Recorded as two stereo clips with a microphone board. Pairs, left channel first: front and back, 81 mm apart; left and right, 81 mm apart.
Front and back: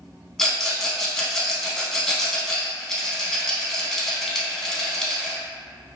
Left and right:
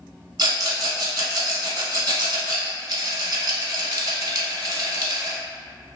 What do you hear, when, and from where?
0.4 s a rattle: 85° right, 0.7 m